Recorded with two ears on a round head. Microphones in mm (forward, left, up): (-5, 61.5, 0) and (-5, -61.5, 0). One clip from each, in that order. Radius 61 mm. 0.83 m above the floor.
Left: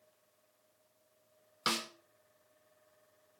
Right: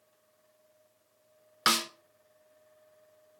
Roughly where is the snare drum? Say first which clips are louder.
Right 8 dB; right.